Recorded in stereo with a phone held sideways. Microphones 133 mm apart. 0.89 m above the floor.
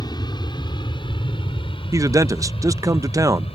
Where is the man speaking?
25° right (ahead or behind).